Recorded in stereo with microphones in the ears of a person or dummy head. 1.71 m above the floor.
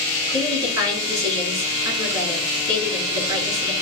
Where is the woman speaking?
20° right (ahead or behind), 4 m.